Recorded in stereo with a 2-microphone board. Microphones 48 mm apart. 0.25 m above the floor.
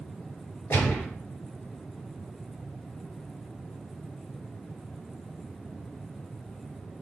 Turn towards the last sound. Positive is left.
turn(degrees=55)  # may be behind; listen again after turning